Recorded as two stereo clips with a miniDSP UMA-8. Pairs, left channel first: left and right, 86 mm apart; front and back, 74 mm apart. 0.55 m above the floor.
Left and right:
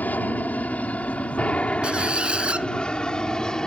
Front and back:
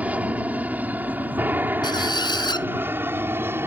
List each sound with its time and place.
0.0 s an aircraft: 135° left; by 3.7 s 165° left
1.8 s a squeak: 10° right